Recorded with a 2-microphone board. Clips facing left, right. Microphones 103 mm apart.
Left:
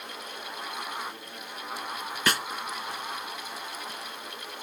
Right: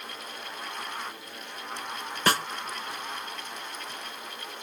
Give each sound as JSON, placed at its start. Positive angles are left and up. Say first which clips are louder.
{"t": 2.3, "sound": "a snare drum", "louder": "right 3 dB", "side_deg": -40}